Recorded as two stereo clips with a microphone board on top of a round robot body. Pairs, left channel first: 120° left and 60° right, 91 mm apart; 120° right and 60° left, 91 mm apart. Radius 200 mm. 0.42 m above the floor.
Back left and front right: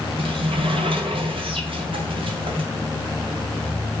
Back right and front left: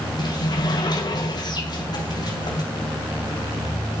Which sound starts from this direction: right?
A sliding door, at 0.2 s.